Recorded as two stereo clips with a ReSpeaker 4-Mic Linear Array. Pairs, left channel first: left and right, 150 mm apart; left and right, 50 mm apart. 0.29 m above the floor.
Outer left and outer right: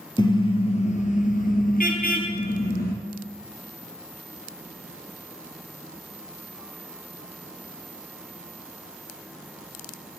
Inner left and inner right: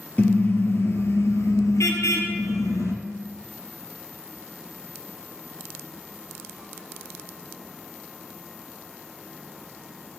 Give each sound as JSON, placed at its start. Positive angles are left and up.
{"t": 0.2, "sound": "a car horn", "side_deg": 30, "distance_m": 3.0}